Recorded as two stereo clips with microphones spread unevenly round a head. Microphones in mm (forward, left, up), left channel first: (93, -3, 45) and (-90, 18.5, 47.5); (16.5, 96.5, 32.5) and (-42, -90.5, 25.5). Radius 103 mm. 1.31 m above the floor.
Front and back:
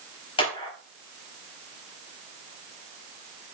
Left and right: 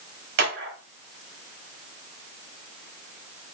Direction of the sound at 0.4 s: 70° right.